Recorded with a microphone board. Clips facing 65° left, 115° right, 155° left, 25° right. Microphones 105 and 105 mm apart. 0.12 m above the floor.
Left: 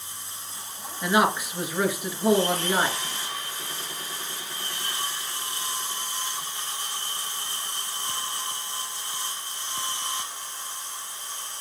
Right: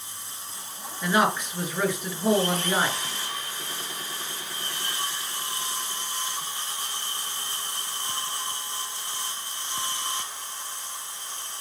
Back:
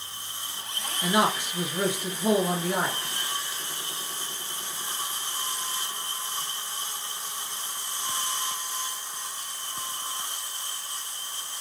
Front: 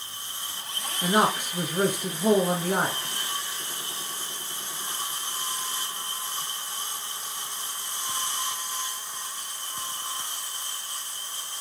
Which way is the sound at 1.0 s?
15° right.